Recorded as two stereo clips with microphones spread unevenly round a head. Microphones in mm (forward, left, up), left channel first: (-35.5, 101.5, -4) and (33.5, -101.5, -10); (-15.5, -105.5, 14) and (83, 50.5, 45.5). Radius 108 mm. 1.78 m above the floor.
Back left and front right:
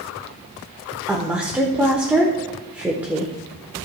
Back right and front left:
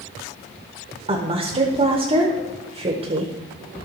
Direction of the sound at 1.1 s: 10° left.